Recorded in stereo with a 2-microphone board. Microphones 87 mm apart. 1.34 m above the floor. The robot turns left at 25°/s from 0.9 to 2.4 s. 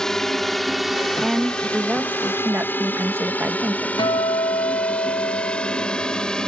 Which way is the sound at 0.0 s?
5° left (ahead or behind).